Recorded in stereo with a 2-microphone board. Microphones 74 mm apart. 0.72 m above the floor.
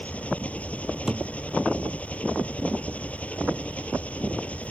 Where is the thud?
5° right (ahead or behind).